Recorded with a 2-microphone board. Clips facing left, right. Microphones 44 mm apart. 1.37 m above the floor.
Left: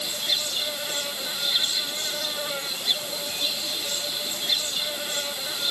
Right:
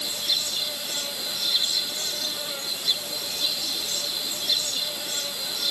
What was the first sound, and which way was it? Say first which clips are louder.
An insect: left 1 dB; 25° left (ahead or behind).